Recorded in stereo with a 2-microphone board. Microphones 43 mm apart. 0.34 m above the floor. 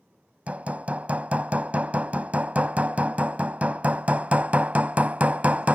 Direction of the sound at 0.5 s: 35° right (ahead or behind).